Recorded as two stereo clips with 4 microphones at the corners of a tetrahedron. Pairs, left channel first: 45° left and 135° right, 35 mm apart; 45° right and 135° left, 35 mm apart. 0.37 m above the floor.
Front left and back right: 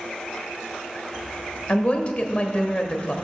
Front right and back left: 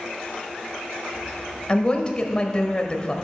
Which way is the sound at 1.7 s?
5° left.